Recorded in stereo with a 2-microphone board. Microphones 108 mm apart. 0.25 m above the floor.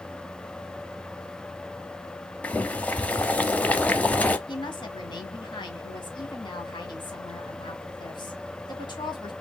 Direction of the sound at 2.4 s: 15° left (ahead or behind).